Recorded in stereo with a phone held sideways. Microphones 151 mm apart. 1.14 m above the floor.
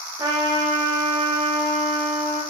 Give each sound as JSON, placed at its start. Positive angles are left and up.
{"t": 0.2, "sound": "a trumpet", "side_deg": -20, "distance_m": 0.7}